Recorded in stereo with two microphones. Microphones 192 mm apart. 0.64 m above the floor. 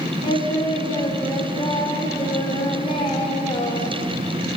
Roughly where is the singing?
Left.